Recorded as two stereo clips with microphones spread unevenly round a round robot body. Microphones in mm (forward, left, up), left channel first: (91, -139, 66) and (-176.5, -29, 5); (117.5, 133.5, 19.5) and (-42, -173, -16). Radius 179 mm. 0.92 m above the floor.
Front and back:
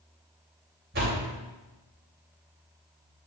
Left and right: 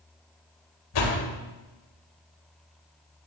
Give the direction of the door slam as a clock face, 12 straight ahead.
9 o'clock.